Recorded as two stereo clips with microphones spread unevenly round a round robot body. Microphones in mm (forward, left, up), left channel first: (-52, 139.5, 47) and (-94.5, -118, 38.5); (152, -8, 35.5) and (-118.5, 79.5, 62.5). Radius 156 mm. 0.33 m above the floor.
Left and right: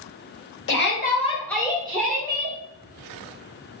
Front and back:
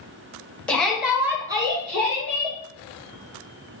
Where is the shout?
60° left, 1.2 m; by 2.6 s 130° right, 1.4 m.